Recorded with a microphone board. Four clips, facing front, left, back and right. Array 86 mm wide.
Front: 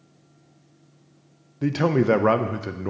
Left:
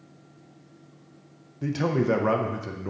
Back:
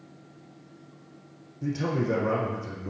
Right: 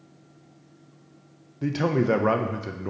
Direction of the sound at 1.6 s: 15° right.